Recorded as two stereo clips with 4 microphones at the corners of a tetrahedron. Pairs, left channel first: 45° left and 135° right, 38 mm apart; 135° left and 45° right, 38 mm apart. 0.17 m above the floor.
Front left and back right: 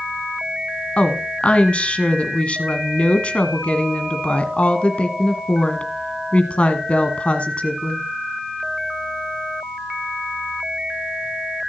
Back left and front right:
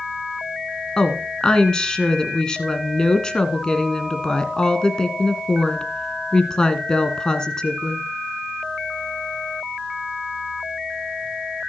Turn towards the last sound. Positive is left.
turn(degrees=80)